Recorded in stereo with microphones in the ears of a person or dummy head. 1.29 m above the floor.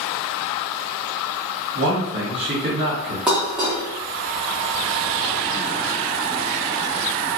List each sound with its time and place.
1.8 s a man speaking: 60° right (ahead or behind), 1.5 m
3.3 s dishes clattering: 5° right (ahead or behind), 0.7 m